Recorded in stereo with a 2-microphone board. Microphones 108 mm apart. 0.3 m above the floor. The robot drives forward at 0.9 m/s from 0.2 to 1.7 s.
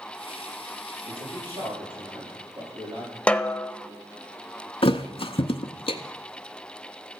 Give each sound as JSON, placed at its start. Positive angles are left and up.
{"t": 1.0, "sound": "a man speaking", "side_deg": -55, "distance_m": 10.0}
{"t": 3.3, "sound": "a snare drum", "side_deg": 10, "distance_m": 0.6}
{"t": 4.8, "sound": "a thud", "side_deg": 60, "distance_m": 0.7}